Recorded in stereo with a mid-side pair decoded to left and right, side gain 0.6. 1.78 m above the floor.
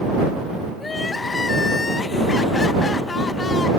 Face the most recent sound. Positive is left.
turn(degrees=25)